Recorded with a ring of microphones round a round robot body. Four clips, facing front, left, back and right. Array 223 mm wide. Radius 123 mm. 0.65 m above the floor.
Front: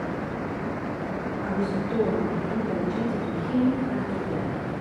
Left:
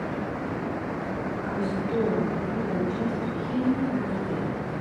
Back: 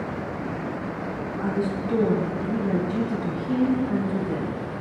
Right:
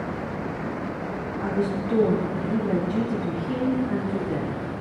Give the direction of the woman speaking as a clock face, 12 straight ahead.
4 o'clock.